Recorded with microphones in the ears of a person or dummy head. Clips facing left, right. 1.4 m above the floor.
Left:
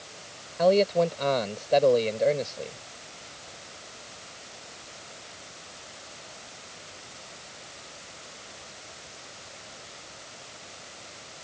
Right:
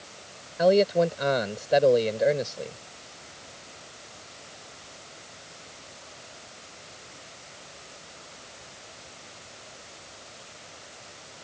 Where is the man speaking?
10° right (ahead or behind).